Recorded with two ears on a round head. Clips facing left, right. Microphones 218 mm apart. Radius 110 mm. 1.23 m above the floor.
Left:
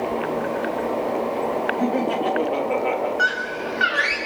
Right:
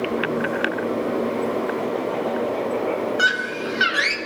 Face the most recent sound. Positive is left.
turn(degrees=-50)  # may be behind; listen again after turning